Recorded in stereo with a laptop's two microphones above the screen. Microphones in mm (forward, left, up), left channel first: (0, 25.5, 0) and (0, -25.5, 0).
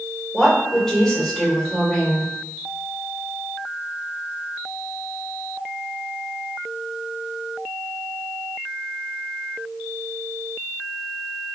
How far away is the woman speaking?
About 1.7 m.